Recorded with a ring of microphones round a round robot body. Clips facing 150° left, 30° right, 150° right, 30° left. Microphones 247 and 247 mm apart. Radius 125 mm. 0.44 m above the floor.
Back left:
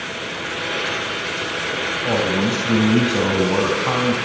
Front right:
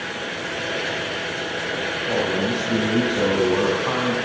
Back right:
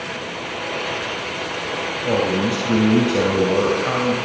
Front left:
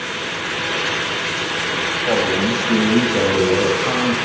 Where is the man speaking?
145° left, 4 m; by 4.2 s 120° left, 4.5 m.